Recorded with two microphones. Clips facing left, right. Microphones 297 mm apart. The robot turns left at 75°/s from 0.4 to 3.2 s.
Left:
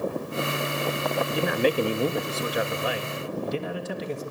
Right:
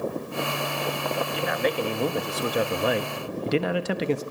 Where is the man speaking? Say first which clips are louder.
Left 5 dB; 65° left, 1.3 m; by 4.2 s 80° right, 1.3 m.